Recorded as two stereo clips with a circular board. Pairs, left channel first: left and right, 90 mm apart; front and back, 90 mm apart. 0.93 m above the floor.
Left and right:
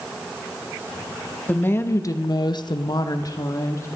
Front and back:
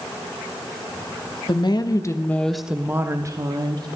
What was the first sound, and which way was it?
A woman speaking, 20° left.